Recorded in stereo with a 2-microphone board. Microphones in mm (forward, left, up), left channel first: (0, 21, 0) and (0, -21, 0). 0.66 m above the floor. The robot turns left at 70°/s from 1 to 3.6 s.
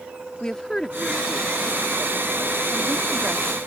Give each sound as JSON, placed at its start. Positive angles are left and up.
{"t": 0.4, "sound": "a woman speaking", "side_deg": 15}